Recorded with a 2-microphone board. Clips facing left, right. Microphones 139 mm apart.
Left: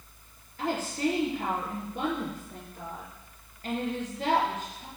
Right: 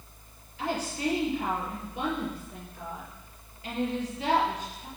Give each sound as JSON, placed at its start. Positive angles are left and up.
{"t": 0.6, "sound": "a woman speaking", "side_deg": 50, "distance_m": 4.0}